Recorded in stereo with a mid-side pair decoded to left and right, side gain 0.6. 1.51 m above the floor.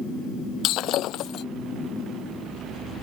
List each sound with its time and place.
0.6 s breaking glass: 60° left